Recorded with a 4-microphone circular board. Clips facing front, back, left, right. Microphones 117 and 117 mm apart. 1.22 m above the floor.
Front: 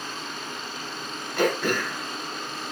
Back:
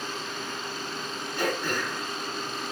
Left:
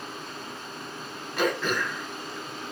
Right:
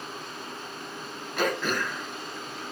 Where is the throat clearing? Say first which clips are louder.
Front 5 dB, left 1 dB; straight ahead, 0.9 m.